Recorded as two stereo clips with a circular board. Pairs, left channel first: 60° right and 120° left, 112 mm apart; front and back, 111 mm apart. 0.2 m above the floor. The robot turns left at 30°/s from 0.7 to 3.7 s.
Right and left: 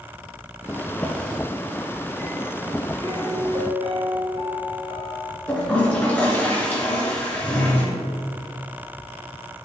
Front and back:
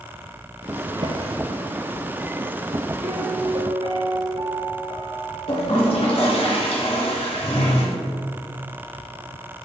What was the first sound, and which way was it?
A drawer, 135° right.